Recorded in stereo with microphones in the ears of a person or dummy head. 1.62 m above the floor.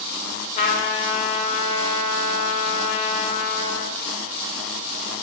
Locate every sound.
0.6 s a trumpet: 45° left (ahead or behind), 0.6 m